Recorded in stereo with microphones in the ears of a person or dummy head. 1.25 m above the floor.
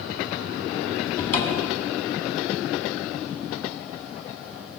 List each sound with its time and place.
1.2 s a cupboard door: 25° left (ahead or behind), 1.4 m